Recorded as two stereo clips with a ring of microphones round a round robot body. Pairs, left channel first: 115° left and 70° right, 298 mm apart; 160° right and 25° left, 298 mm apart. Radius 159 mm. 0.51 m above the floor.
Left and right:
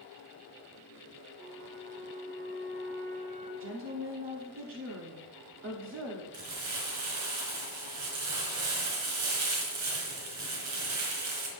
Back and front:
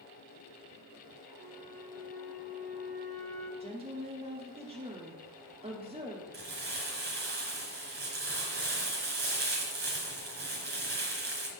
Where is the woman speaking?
40° right, 1.1 m.